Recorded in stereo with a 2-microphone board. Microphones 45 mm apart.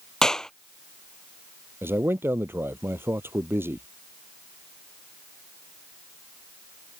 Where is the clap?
15° left (ahead or behind).